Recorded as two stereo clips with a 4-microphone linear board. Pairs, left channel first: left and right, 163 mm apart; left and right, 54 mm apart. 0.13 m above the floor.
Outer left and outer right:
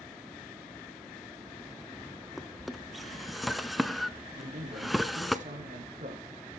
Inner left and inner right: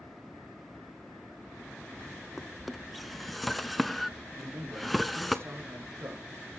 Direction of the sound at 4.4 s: 50° right (ahead or behind).